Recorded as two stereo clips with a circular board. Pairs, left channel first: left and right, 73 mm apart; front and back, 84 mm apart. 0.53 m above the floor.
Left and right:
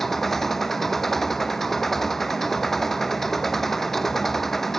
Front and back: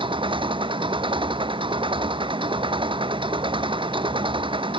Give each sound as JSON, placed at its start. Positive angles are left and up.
{"t": 0.0, "sound": "an engine running", "azimuth_deg": 175}